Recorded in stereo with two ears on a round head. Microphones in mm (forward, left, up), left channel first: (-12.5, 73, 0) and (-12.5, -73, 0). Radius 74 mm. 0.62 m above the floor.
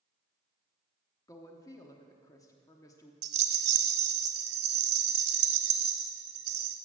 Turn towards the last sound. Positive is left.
turn(degrees=-75)  # may be behind; listen again after turning